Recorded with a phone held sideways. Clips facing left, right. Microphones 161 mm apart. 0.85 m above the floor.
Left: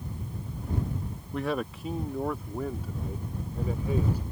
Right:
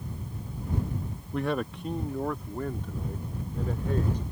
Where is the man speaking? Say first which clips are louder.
Right 1 dB; centre (ahead or behind); by 4.2 s 10° left (ahead or behind).